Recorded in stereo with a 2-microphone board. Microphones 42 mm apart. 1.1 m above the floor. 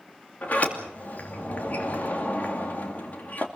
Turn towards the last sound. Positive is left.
turn(degrees=40)  # may be behind; listen again after turning